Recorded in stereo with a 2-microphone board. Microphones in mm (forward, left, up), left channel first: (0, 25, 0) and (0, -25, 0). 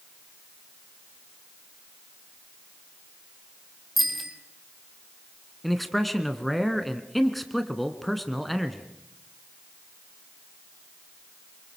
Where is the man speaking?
5° left (ahead or behind), 1.6 m.